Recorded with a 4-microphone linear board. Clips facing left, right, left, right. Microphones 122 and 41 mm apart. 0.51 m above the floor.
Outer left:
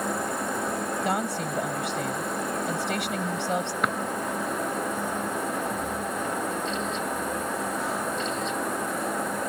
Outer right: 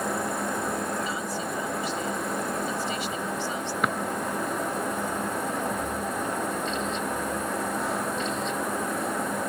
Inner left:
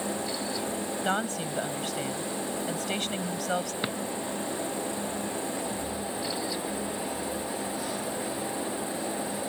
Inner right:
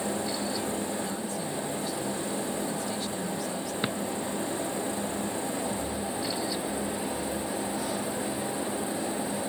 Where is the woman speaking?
70° left (ahead or behind).